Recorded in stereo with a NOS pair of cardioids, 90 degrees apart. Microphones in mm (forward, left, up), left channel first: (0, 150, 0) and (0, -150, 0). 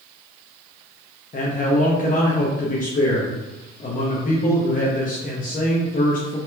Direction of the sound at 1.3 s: 30° left.